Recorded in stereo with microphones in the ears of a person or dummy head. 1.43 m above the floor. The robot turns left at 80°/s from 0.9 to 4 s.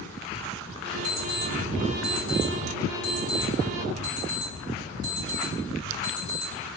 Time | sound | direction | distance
1.0 | an alarm clock | 10° left (ahead or behind) | 1.6 m